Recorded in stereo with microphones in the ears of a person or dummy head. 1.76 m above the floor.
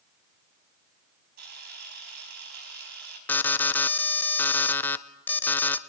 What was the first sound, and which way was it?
A camera shutter, 65° right (ahead or behind).